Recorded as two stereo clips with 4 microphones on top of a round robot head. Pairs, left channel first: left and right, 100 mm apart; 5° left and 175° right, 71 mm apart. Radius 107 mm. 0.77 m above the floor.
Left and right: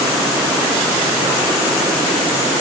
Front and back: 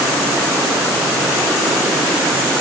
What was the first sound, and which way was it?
Only background noise.